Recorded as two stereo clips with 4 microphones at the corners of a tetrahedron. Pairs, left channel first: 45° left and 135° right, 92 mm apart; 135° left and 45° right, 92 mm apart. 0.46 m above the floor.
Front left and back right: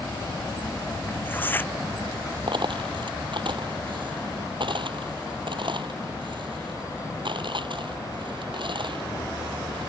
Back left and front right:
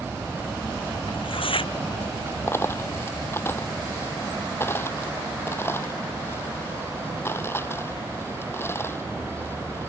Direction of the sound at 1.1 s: 115° left.